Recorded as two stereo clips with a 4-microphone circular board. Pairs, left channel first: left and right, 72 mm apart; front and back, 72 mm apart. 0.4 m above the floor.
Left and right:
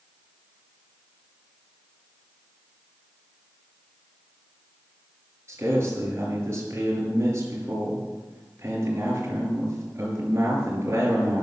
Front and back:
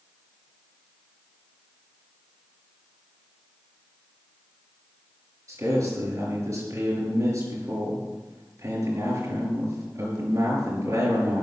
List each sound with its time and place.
5.5 s a man speaking: 145° right, 5.5 m